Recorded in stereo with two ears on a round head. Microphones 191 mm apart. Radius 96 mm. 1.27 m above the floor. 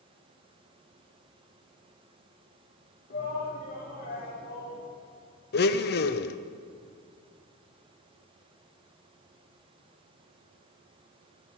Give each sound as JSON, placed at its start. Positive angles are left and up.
{"t": 3.1, "sound": "a shout", "side_deg": 45, "distance_m": 3.5}
{"t": 5.5, "sound": "a blender", "side_deg": 50, "distance_m": 0.7}